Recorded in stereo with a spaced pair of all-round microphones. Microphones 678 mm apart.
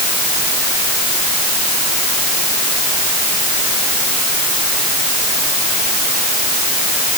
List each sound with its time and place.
Only background noise.